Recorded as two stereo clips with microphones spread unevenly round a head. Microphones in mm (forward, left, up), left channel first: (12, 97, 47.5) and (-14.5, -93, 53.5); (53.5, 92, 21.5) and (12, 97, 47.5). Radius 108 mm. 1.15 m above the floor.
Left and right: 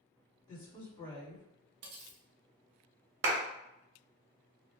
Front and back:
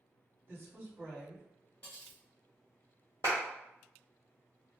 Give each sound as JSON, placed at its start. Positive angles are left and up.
{"t": 0.5, "sound": "a woman speaking", "azimuth_deg": 130, "distance_m": 1.7}
{"t": 1.8, "sound": "cutlery clinking", "azimuth_deg": -100, "distance_m": 0.7}
{"t": 3.2, "sound": "a clap", "azimuth_deg": -125, "distance_m": 0.8}